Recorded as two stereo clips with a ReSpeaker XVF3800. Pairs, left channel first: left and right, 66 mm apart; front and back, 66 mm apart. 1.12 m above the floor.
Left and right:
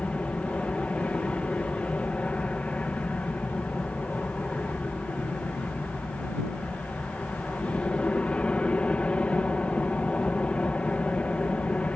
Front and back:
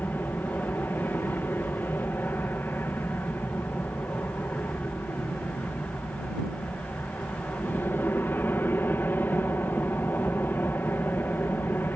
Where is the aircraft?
30° left.